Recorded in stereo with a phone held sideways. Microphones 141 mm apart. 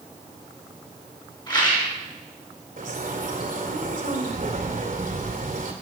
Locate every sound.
1.5 s a rattle: 30° left (ahead or behind), 6 m
2.8 s a bird: 75° right (ahead or behind), 2 m